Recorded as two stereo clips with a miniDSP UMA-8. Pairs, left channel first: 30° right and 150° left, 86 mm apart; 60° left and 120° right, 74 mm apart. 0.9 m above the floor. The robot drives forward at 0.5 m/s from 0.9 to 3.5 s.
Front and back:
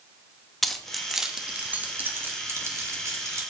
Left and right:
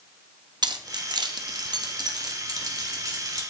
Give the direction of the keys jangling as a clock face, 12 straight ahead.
4 o'clock.